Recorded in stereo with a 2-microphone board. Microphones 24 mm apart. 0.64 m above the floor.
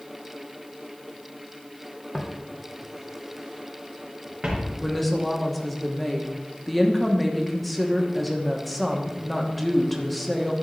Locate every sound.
2.1 s footsteps: 45° left (ahead or behind), 1.6 m; by 4.7 s 40° right (ahead or behind), 3.5 m
4.8 s a woman speaking: 5° left (ahead or behind), 1.1 m